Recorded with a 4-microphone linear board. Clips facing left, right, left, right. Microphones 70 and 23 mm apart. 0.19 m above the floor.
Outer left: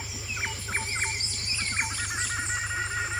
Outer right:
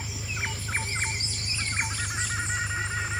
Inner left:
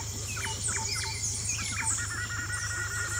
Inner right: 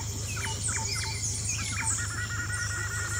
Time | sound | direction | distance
0.0 | an engine running | 85° right | ?